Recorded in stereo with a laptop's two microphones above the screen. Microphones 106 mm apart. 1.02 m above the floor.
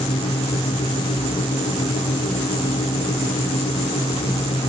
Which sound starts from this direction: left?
A fan, at 0.0 s.